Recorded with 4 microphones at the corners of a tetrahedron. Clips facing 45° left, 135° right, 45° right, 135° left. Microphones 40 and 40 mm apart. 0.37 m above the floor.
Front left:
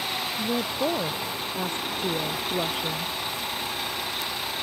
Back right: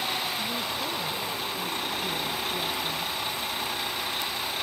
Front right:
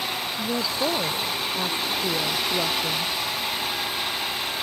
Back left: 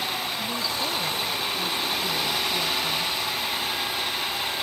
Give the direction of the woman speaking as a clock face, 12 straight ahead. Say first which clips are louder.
Front left 4 dB, front right 3 dB; 12 o'clock.